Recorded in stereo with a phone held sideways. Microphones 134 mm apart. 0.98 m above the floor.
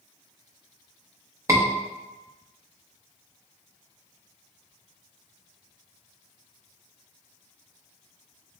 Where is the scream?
25° right (ahead or behind), 1.0 m.